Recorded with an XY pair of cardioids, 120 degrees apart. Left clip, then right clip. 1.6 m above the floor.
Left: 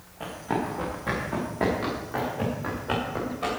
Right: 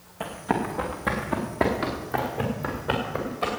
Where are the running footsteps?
40° right, 6.5 m; by 3.5 s 35° right, 9 m.